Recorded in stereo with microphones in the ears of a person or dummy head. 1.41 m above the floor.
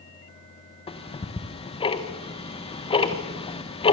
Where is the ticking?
25° left (ahead or behind), 1.4 m.